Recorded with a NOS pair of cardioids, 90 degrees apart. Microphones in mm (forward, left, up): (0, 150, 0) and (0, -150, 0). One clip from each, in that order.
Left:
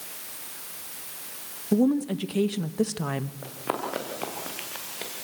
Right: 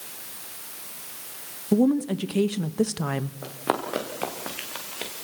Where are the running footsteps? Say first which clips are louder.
Right 4 dB; 20° right, 4.5 m.